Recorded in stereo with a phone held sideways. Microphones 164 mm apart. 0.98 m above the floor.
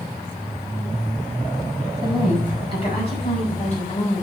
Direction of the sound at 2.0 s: 35° left (ahead or behind).